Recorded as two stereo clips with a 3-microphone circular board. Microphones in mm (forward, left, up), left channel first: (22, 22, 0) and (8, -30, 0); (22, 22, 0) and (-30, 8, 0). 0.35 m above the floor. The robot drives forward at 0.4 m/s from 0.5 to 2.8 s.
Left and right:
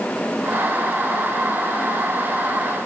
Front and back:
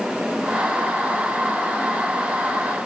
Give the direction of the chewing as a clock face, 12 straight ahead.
I don't hear chewing.